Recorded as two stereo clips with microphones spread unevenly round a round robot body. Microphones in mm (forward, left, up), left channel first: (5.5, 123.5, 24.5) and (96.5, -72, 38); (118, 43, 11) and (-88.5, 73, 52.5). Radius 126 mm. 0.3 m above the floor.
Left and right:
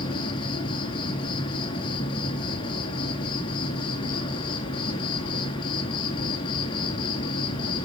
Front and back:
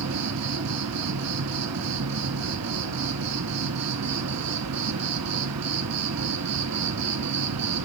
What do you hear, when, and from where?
0.0 s an insect: 170° right, 0.7 m